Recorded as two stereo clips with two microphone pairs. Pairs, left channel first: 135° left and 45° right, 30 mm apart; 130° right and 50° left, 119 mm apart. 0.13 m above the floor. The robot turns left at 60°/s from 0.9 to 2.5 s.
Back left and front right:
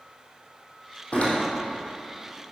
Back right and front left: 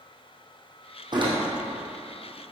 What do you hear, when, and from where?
1.1 s a door slam: 100° left, 3 m; by 1.3 s 85° left, 3 m